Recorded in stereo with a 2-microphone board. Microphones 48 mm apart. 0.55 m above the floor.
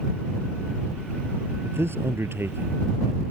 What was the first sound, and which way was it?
A man speaking, 60° right (ahead or behind).